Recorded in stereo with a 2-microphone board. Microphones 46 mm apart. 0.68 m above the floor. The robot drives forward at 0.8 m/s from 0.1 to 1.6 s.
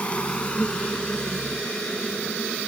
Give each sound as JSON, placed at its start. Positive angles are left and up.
{"t": 0.0, "sound": "an insect", "side_deg": 25}